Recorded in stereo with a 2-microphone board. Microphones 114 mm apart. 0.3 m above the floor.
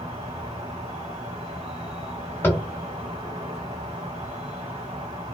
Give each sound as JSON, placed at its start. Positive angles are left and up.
{"t": 0.0, "sound": "an insect", "side_deg": -65, "distance_m": 1.1}
{"t": 2.4, "sound": "tapping", "side_deg": 20, "distance_m": 1.1}